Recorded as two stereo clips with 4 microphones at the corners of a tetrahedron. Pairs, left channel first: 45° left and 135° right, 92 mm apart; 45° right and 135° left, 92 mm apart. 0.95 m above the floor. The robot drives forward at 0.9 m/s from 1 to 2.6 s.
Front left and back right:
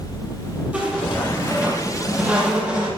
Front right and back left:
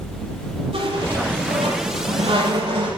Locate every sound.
0.7 s a squeak: 145° left, 8 m; by 2.9 s 150° left, 9 m